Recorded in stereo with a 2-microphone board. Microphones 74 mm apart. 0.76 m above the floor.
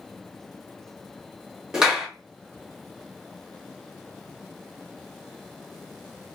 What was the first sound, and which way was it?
A clap, 10° right (ahead or behind).